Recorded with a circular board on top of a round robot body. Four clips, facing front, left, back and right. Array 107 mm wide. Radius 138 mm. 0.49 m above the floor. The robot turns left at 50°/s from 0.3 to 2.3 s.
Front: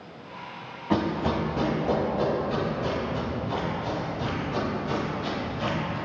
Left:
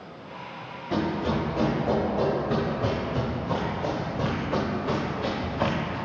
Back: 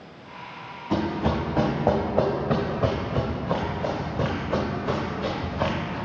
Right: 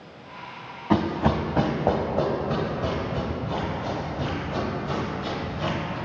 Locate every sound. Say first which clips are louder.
0.9 s running footsteps: right 4 dB, even; 75° right, 1.7 m; by 6.0 s 130° left, 2 m